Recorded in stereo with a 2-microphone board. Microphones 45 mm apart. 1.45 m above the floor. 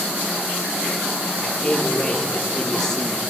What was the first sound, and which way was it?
A man speaking, 10° left (ahead or behind).